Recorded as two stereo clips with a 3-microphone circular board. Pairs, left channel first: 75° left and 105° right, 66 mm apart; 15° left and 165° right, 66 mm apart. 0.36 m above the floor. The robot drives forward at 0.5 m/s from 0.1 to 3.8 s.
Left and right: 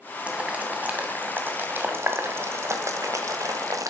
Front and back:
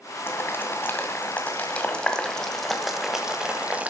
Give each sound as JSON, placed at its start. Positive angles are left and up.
{"t": 0.3, "sound": "boiling", "azimuth_deg": -35, "distance_m": 2.0}